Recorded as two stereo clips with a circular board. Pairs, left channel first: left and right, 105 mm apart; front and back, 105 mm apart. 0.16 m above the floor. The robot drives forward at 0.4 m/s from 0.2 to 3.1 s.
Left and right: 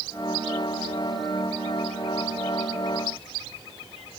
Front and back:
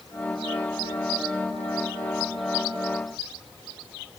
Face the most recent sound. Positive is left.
No sound to turn to.